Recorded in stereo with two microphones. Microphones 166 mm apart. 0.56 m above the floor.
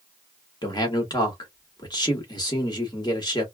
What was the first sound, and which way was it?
A man speaking, 25° left (ahead or behind).